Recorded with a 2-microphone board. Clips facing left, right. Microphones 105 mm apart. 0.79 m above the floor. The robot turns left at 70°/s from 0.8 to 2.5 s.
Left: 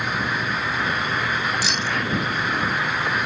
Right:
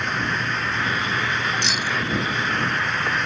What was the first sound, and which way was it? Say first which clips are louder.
Keys jangling: even; 5° left (ahead or behind).